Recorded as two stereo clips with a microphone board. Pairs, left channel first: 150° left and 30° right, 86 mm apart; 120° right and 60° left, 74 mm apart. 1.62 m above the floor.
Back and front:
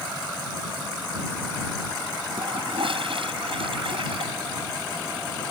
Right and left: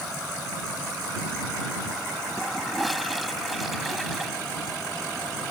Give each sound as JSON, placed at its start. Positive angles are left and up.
{"t": 2.4, "sound": "a toilet flushing", "azimuth_deg": -30}